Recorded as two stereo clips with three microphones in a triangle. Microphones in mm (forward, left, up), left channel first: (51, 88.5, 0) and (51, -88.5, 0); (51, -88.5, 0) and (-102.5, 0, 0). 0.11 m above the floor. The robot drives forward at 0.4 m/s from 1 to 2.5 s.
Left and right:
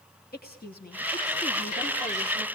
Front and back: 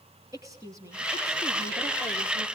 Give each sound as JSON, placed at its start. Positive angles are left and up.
{"t": 0.3, "sound": "a woman speaking", "azimuth_deg": 80, "distance_m": 3.0}